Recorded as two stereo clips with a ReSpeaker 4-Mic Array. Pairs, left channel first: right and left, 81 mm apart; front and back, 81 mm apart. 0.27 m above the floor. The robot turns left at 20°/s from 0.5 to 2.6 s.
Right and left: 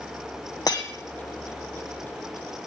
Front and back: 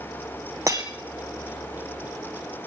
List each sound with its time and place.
0.7 s breaking glass: 130° right, 2 m; by 0.9 s 135° right, 2 m